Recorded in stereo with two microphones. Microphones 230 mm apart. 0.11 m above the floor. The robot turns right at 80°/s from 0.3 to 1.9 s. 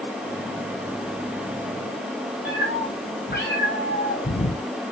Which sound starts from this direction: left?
A cat meowing, at 2.5 s.